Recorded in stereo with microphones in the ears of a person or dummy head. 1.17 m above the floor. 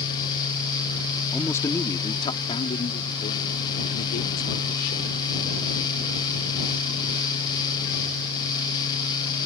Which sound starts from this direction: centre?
A man speaking, at 1.3 s.